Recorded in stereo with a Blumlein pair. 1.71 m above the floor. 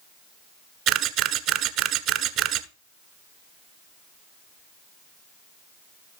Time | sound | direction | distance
0.9 | a camera shutter | 35° right | 1.4 m